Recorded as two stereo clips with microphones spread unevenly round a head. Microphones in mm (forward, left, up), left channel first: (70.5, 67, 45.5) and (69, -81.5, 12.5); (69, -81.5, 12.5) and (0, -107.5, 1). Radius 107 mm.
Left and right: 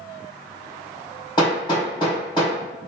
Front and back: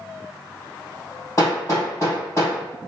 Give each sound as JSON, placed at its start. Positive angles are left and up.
{"t": 1.4, "sound": "hammering", "azimuth_deg": 60, "distance_m": 1.4}